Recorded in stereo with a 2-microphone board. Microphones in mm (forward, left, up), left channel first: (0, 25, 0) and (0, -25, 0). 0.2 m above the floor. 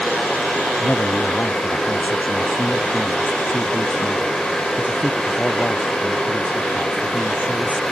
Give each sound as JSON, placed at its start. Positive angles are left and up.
{"t": 0.8, "sound": "a man speaking", "side_deg": 30}